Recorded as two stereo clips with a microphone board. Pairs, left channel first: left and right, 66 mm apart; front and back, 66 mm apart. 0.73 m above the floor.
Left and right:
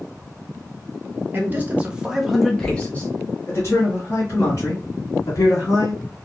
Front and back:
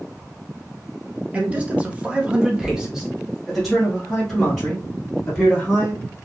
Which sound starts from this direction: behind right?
A man speaking, at 1.3 s.